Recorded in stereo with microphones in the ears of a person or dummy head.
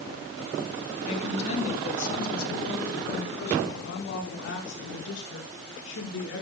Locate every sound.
1.0 s a woman speaking: 40° left (ahead or behind), 3.5 m; by 6.4 s 80° left, 7 m